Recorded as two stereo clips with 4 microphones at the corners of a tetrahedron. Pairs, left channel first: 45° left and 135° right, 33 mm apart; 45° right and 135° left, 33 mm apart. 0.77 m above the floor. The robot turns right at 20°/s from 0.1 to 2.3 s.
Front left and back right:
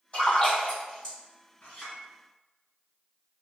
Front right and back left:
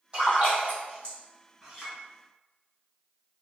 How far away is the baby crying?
I don't hear a baby crying.